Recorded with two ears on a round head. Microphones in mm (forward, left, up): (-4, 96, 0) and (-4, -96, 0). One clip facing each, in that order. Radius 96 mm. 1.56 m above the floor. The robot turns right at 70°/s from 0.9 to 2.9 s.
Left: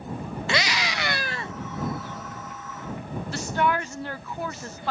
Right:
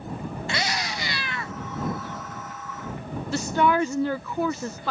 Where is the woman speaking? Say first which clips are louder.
Right 4 dB; 70° right (ahead or behind).